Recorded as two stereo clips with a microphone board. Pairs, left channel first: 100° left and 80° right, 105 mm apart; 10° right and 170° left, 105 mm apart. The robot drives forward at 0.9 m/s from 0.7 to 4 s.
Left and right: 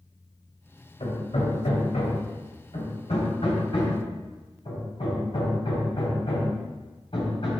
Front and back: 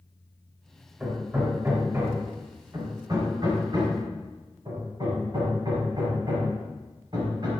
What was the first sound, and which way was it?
Hammering, 95° left.